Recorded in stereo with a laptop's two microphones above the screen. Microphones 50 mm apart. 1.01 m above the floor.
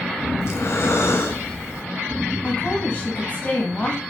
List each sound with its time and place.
0.4 s breathing: 60° left (ahead or behind), 0.7 m
2.4 s a woman speaking: 30° left (ahead or behind), 1.0 m